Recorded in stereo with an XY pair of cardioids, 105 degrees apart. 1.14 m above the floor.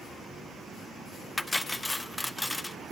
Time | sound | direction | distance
1.4 | cutlery clinking | 10° left | 0.7 m